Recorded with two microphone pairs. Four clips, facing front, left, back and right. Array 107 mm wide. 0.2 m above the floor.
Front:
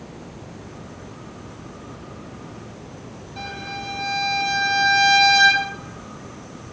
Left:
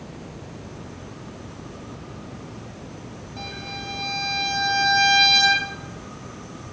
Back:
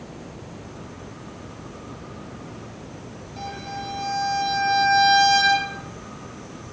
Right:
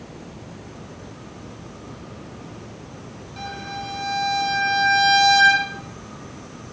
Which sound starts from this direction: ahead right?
A violin, at 3.4 s.